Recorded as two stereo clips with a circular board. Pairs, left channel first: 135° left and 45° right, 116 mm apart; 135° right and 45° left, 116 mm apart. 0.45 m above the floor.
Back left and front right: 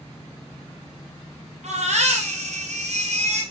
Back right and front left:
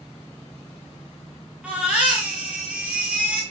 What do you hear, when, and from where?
1.6 s a baby crying: 35° right, 4 m